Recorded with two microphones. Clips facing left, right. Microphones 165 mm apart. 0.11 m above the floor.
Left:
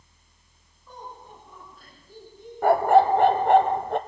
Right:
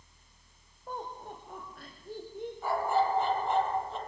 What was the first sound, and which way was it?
Laughter, 55° right (ahead or behind).